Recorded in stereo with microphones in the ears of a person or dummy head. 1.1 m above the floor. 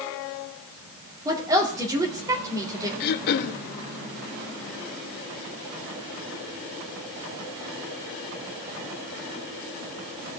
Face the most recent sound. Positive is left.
turn(degrees=55)  # may be behind; listen again after turning